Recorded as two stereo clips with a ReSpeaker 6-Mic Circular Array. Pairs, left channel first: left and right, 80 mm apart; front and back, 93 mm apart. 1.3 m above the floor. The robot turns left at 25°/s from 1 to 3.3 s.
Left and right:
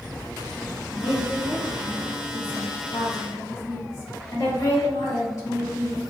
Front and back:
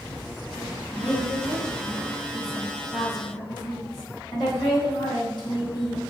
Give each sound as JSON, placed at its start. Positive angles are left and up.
{"t": 0.9, "sound": "a woman speaking", "azimuth_deg": 95, "distance_m": 1.6}